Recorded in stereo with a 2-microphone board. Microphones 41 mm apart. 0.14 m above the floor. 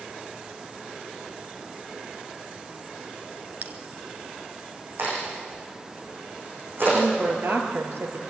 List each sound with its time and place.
3.6 s a bell: 45° right (ahead or behind), 1.6 m
5.0 s a crack: 60° right (ahead or behind), 9 m
6.9 s a woman speaking: 65° right (ahead or behind), 3 m